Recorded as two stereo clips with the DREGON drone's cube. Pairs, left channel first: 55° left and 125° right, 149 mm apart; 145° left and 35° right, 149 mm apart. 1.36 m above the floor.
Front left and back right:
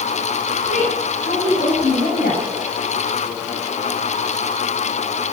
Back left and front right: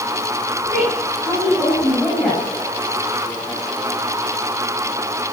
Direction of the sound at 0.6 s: 70° left.